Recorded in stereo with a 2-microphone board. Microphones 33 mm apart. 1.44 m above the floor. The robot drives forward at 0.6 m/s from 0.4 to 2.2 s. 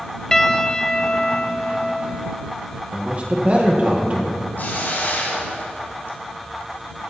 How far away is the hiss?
About 3 m.